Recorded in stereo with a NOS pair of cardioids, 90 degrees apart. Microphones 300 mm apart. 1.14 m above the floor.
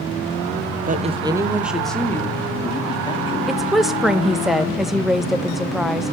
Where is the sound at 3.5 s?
Straight ahead, 0.7 m.